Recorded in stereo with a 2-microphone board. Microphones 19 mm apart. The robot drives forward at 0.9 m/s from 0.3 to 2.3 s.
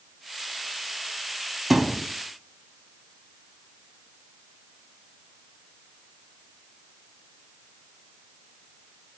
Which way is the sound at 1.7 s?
15° right (ahead or behind).